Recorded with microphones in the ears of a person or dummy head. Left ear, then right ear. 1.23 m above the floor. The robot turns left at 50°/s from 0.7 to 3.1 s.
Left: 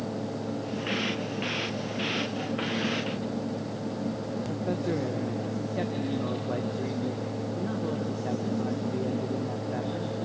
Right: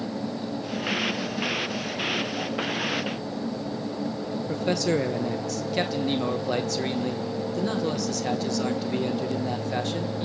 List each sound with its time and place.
4.5 s a man speaking: 75° right (ahead or behind), 0.9 m